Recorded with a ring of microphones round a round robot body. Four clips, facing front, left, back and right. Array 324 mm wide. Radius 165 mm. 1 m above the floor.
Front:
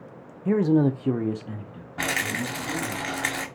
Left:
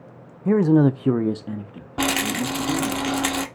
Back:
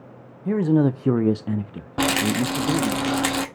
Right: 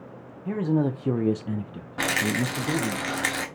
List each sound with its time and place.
0.5 s a man speaking: 80° left, 0.6 m; by 3.0 s 155° right, 1.2 m
2.0 s a rattle: 155° left, 0.8 m